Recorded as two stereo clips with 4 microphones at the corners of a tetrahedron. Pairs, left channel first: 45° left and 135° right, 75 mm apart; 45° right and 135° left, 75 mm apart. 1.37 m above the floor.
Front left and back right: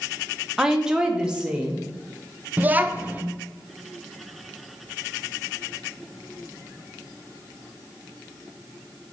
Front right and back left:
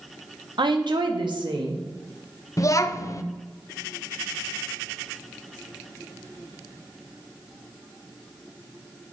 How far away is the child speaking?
About 0.5 m.